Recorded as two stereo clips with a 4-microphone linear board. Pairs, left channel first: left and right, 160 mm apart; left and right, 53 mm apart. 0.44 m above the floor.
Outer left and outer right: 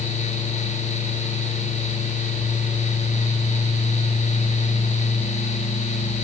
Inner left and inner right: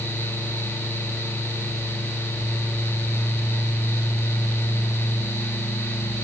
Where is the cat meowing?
No cat meowing in this recording.